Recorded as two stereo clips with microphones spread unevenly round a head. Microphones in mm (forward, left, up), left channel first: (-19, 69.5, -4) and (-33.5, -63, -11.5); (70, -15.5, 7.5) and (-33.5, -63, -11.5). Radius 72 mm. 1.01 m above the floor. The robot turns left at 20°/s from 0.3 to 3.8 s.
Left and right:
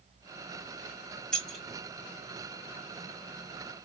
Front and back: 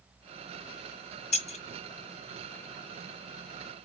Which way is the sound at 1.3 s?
5° right.